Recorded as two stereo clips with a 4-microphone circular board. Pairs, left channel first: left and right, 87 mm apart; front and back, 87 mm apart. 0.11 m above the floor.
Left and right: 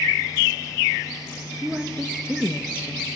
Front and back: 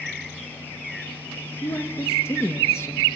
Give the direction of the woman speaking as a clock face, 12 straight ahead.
1 o'clock.